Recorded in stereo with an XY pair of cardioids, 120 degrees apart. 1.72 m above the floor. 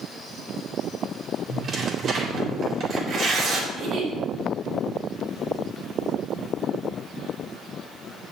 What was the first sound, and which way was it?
Tearing paper, 50° right.